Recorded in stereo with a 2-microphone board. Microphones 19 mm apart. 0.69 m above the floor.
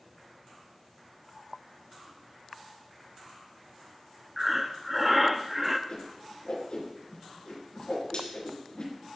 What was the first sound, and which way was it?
Breathing, 10° right (ahead or behind).